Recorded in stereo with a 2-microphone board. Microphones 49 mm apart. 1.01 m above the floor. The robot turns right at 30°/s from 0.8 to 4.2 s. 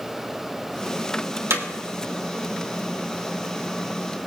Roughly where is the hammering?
Right.